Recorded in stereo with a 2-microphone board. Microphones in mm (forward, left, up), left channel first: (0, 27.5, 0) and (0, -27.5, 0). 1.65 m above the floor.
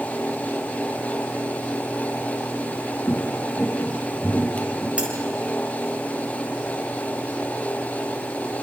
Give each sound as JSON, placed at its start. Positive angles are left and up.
{"t": 2.6, "sound": "footsteps", "side_deg": 45, "distance_m": 2.0}
{"t": 5.0, "sound": "cutlery clinking", "side_deg": -25, "distance_m": 6.0}